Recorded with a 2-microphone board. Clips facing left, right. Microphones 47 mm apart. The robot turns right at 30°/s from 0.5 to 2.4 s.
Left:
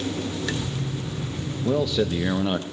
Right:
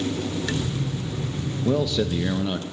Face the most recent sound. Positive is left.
turn(degrees=20)  # may be behind; listen again after turning